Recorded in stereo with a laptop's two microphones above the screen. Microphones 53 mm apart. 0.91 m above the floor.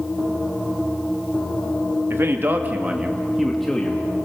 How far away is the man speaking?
About 1.4 m.